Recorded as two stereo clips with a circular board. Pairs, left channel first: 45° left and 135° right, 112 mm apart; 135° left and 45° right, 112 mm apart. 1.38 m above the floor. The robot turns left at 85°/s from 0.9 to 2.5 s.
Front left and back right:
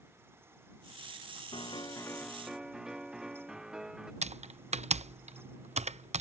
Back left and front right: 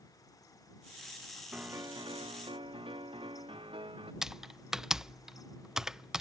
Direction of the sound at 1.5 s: 30° left.